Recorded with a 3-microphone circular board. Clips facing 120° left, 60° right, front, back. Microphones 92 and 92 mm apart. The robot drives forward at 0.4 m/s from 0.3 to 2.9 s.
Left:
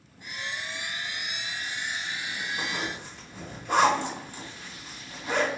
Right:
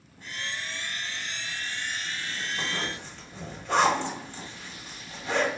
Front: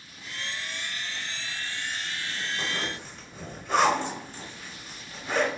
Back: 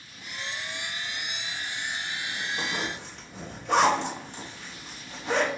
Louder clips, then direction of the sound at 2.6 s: Even, back 1 dB; 165° right.